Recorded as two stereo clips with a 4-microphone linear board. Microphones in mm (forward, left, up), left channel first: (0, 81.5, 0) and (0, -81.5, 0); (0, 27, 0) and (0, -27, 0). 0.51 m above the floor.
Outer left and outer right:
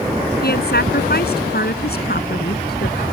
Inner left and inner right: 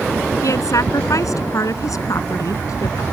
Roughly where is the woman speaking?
Left.